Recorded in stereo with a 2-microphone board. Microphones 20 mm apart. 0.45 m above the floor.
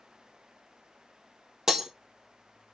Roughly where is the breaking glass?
Right.